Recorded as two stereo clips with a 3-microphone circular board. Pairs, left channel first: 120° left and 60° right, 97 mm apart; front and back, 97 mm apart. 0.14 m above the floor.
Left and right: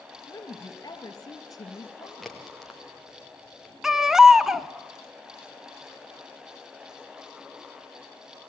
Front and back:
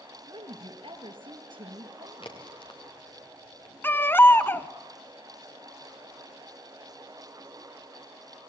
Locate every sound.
0.3 s a woman speaking: 165° left, 3 m
2.2 s a crack: 30° left, 4 m
3.8 s a baby crying: 20° left, 0.8 m